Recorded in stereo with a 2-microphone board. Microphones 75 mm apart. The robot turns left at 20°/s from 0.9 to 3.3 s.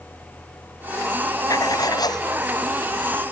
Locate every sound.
1.5 s writing: 55° left (ahead or behind); by 2.3 s 70° left (ahead or behind)